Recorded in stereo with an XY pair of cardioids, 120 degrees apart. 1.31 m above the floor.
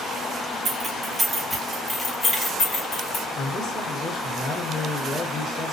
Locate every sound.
0.7 s keys jangling: 25° right, 1.4 m; by 3.2 s 60° left, 1.4 m
3.4 s a man speaking: 55° left, 1.6 m